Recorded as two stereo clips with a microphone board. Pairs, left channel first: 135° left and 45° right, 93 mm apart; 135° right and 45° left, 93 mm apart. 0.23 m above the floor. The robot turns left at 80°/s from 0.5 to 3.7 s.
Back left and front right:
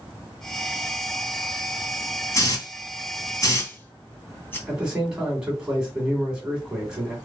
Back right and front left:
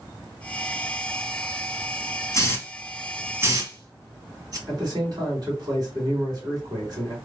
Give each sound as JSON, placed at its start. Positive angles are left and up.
{"t": 2.3, "sound": "a hiss", "azimuth_deg": -175, "distance_m": 1.1}
{"t": 4.7, "sound": "a man speaking", "azimuth_deg": 30, "distance_m": 2.0}